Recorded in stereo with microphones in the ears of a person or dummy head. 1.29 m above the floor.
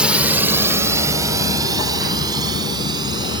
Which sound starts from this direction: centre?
A drone, at 0.0 s.